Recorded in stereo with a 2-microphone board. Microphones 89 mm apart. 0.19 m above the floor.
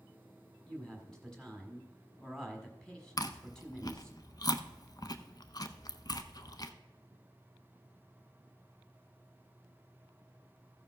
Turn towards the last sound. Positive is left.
turn(degrees=45)  # may be behind; listen again after turning